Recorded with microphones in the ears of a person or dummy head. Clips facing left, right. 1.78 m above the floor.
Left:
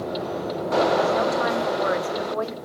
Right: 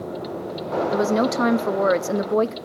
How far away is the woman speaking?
About 1.1 m.